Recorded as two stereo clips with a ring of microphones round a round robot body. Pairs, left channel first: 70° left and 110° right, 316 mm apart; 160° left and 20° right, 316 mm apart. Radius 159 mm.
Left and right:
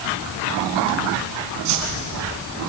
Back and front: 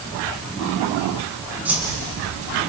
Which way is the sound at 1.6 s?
105° right.